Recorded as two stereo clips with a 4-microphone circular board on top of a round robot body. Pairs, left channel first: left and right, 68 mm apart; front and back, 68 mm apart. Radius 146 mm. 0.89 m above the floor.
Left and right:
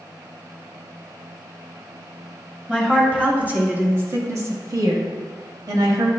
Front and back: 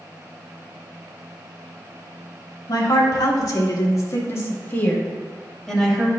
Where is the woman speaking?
10° right, 2.5 m; by 6.1 s 100° right, 1.9 m.